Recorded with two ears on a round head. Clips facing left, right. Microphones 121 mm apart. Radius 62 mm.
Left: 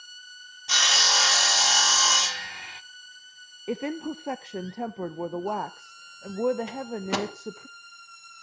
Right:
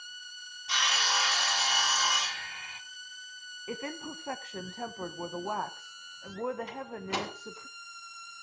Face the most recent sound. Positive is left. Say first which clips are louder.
# left 6 dB
turn(degrees=65)  # may be behind; listen again after turning